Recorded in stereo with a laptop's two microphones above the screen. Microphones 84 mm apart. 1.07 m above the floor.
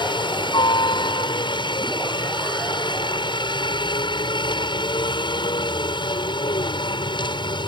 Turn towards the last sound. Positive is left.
turn(degrees=65)  # may be behind; listen again after turning